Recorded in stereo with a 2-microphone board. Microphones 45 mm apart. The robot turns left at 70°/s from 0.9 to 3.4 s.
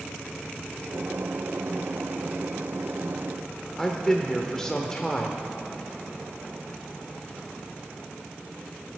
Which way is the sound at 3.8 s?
15° left (ahead or behind).